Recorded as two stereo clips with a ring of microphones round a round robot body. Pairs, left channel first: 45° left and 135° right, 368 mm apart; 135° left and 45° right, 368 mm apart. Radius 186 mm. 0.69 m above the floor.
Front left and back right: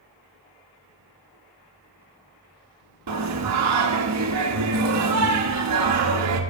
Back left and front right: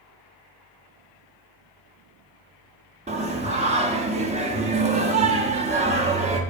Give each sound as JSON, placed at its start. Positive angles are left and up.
{"t": 3.1, "sound": "singing", "azimuth_deg": -110, "distance_m": 1.3}